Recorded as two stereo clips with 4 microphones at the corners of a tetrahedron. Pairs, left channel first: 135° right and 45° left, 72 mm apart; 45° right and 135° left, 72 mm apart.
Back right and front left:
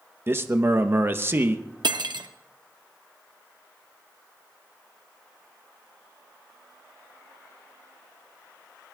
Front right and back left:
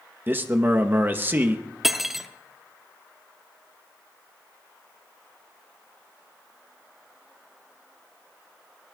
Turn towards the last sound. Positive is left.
turn(degrees=50)